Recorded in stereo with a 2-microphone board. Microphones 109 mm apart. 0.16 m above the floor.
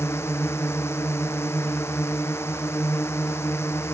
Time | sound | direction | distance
0.0 | a drone | 25° left (ahead or behind) | ?